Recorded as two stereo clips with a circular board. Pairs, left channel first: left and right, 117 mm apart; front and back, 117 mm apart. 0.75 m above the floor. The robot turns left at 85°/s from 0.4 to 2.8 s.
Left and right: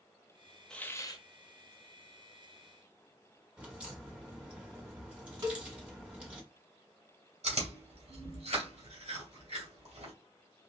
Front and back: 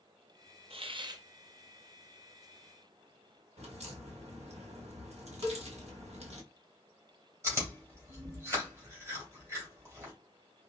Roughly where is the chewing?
Behind right.